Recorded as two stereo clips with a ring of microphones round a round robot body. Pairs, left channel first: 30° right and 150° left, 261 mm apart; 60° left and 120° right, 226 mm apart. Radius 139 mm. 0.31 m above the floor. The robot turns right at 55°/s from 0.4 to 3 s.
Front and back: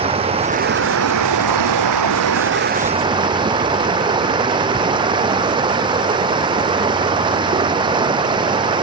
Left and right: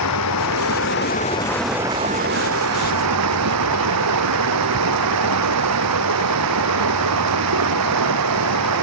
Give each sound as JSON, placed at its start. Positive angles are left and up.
{"t": 0.0, "sound": "running water", "azimuth_deg": 80}